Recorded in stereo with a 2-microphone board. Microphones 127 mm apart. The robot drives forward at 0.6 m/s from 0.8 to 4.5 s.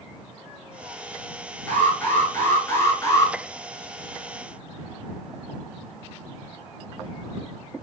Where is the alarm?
15° left (ahead or behind), 1.9 m; by 3.3 s 30° left (ahead or behind), 1.1 m.